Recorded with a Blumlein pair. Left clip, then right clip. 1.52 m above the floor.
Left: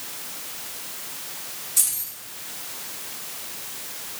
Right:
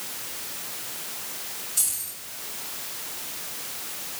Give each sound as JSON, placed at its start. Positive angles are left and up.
{"t": 1.8, "sound": "keys jangling", "azimuth_deg": 55, "distance_m": 3.0}